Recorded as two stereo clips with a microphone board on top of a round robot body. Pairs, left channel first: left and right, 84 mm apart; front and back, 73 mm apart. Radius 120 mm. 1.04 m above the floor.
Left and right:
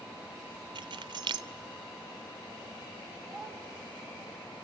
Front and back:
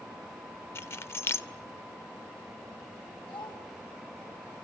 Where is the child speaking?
5° left, 6.5 m.